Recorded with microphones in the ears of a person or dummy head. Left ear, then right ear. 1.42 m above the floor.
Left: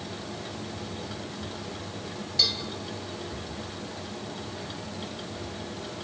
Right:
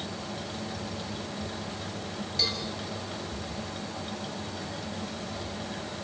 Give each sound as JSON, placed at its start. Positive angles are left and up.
{"t": 0.0, "sound": "a fan", "side_deg": -10, "distance_m": 2.0}
{"t": 2.4, "sound": "a cowbell", "side_deg": 10, "distance_m": 4.0}